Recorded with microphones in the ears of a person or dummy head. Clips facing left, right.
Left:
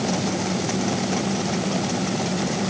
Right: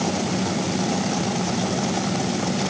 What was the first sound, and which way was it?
Only background noise.